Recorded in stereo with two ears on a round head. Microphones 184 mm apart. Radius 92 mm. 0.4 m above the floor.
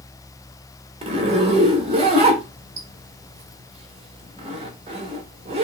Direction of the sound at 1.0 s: 30° right (ahead or behind).